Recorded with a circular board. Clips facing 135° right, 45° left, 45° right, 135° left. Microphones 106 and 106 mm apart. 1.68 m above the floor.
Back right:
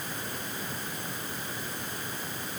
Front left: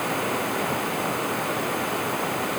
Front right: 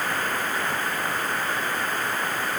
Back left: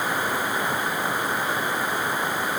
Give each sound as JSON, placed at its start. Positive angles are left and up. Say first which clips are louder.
{"t": 0.0, "sound": "running water", "louder": "front left 13 dB, back left 2 dB", "azimuth_deg": 55}